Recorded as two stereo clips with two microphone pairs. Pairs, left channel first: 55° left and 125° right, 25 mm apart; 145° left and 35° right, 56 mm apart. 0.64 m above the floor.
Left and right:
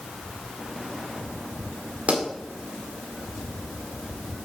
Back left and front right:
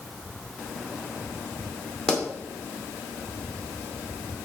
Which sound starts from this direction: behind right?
A pop, at 2.1 s.